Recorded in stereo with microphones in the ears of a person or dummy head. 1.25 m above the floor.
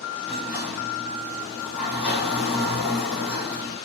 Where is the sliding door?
10° right (ahead or behind), 1.3 m.